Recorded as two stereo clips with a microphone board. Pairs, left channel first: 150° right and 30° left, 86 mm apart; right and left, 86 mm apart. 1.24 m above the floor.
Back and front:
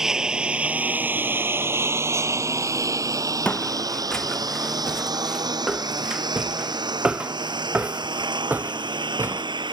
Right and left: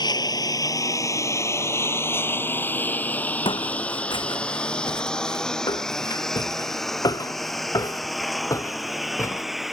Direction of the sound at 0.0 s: 55° right.